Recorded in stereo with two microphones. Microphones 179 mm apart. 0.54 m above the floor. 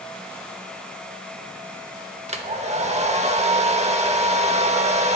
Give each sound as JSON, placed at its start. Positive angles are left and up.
{"t": 2.3, "sound": "a hair dryer", "side_deg": -40, "distance_m": 0.8}